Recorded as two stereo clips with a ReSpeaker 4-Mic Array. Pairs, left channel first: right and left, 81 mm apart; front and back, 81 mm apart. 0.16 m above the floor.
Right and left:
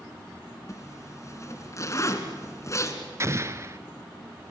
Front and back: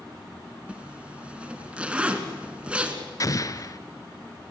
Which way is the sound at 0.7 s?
110° right.